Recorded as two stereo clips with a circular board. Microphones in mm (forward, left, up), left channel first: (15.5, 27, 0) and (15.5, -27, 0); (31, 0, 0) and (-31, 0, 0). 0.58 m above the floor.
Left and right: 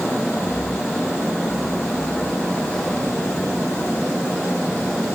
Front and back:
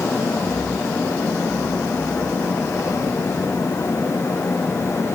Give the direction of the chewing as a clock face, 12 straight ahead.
No chewing in this recording.